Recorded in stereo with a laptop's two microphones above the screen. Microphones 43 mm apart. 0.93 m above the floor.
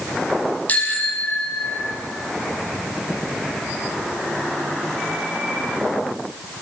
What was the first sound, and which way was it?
A bicycle bell, 35° left (ahead or behind).